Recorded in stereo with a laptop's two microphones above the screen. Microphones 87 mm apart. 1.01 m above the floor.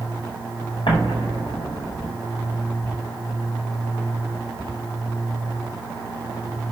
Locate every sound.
0.9 s an explosion: 85° left, 4.5 m